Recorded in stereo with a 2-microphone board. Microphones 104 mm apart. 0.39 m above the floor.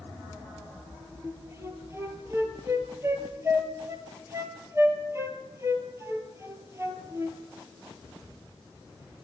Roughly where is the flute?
Right.